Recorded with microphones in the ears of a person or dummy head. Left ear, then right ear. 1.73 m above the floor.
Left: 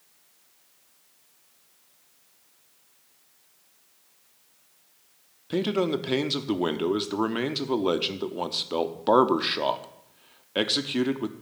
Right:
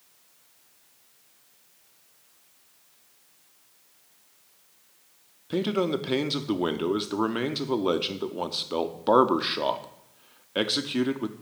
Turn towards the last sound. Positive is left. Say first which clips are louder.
# left 1 dB
turn(degrees=5)  # may be behind; listen again after turning